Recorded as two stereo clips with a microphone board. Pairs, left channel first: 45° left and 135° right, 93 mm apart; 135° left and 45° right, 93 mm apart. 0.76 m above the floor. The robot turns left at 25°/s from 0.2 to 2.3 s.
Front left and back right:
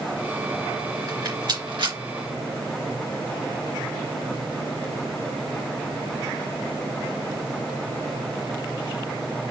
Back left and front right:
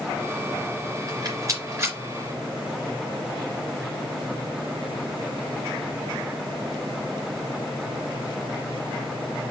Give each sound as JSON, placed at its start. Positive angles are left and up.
{"t": 1.1, "sound": "a rattle", "azimuth_deg": -85, "distance_m": 3.0}